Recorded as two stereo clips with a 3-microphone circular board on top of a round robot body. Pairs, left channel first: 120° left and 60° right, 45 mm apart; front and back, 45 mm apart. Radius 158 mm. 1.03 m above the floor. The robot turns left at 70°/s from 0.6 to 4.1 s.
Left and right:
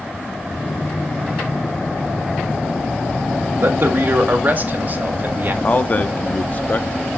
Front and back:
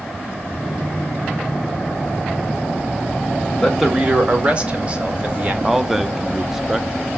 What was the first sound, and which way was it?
A man speaking, 80° right.